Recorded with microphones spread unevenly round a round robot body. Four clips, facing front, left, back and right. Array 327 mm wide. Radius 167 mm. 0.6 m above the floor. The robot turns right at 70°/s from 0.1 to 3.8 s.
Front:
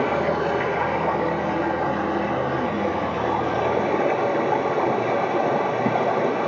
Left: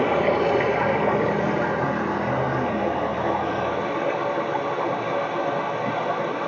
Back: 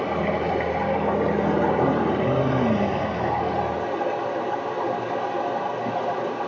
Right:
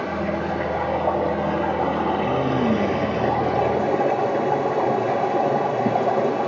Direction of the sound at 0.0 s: 55° left.